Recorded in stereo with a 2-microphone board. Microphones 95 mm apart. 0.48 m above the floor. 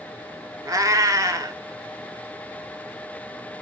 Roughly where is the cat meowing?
Right.